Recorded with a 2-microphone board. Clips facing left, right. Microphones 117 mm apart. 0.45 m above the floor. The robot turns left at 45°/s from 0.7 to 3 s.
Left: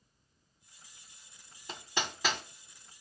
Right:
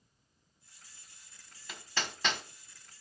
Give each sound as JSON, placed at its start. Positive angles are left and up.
{"t": 1.7, "sound": "hammering", "side_deg": 30, "distance_m": 1.1}